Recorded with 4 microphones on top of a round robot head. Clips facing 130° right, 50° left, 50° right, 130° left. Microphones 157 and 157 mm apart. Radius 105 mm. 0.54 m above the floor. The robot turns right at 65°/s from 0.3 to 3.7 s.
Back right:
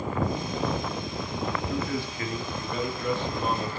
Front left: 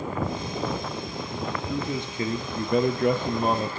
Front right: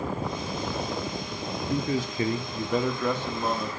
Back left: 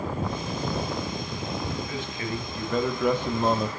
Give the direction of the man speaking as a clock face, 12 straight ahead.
1 o'clock.